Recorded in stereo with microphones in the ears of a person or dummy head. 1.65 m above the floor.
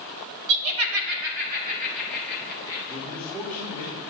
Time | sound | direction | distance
0.5 | laughter | 60° right (ahead or behind) | 0.9 m
2.9 | a man speaking | 30° right (ahead or behind) | 1.6 m